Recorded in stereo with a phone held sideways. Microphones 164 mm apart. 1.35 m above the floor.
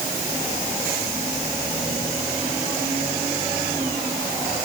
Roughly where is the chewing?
I don't hear chewing.